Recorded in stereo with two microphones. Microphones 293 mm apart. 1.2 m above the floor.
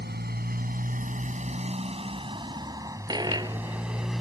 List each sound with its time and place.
0.0 s a motorcycle: 35° right (ahead or behind); by 4.2 s centre (ahead or behind)
3.1 s a dropped coin: 15° right (ahead or behind)